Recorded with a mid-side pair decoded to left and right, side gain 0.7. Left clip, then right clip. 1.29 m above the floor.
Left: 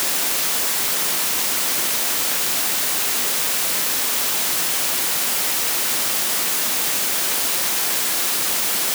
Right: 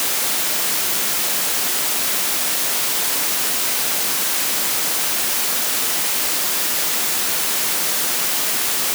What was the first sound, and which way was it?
Only background noise.